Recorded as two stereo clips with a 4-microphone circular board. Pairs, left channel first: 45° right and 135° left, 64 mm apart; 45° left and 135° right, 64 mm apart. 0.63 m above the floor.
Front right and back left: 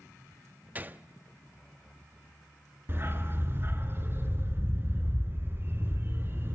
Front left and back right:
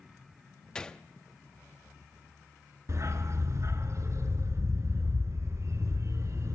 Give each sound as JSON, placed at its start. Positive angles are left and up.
{"t": 0.8, "sound": "a gunshot", "azimuth_deg": 110, "distance_m": 0.7}
{"t": 2.9, "sound": "a dog barking", "azimuth_deg": -175, "distance_m": 2.0}